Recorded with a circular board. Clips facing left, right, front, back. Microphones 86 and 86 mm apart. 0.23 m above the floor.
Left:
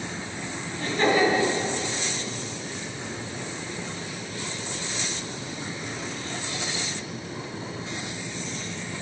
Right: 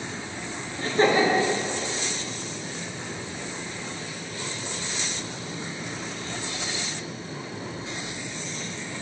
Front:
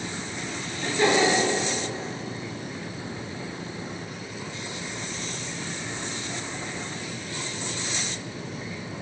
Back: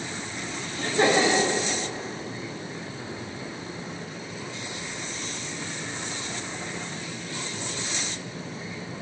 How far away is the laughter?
About 3 m.